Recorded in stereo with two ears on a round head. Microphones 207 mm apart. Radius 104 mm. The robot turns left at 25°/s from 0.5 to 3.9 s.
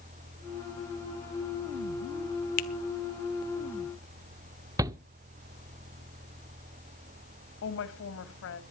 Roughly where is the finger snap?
Left.